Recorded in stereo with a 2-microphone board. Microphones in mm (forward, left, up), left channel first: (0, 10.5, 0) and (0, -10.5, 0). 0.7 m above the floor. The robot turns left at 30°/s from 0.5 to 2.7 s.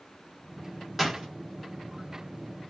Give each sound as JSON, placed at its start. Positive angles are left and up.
{"t": 1.0, "sound": "a door slam", "side_deg": -10, "distance_m": 0.8}